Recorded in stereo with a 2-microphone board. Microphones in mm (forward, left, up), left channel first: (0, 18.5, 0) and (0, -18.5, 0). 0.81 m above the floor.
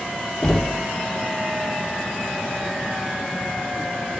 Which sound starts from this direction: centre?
Knocking, at 0.4 s.